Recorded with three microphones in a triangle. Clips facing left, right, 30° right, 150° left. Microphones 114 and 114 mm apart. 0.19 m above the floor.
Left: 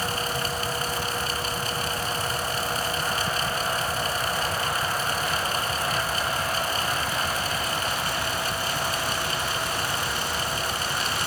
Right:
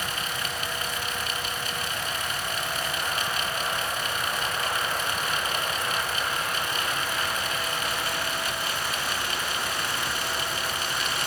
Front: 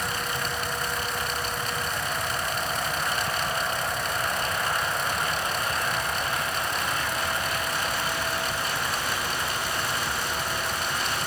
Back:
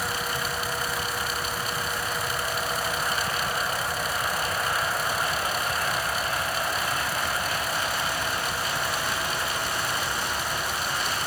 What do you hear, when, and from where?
Only background noise.